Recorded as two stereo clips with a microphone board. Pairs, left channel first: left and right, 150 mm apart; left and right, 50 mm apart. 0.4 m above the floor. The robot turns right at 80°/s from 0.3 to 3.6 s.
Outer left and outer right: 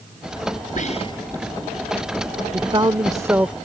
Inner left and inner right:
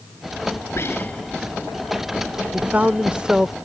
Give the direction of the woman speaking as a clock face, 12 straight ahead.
3 o'clock.